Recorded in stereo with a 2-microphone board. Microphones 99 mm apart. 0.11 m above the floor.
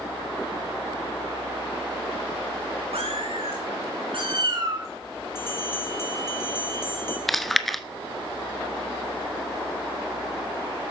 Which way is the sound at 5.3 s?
25° left (ahead or behind).